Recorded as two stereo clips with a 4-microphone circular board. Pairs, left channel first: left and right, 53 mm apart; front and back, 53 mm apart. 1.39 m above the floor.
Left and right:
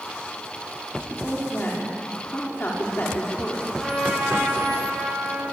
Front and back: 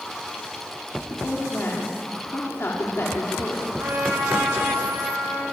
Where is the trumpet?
175° right, 9 m.